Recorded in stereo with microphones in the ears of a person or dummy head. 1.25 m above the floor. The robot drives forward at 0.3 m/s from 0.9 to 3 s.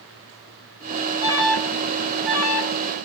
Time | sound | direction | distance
1.2 | an alarm | 15° right (ahead or behind) | 1.8 m